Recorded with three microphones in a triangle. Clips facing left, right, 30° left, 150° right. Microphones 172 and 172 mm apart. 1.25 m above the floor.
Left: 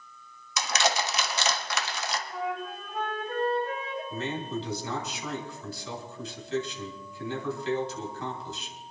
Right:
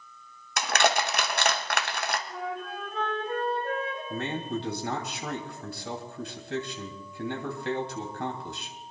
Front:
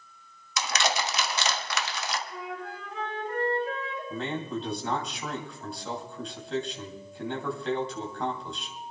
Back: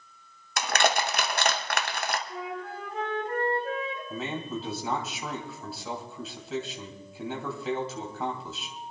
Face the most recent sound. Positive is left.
turn(degrees=-65)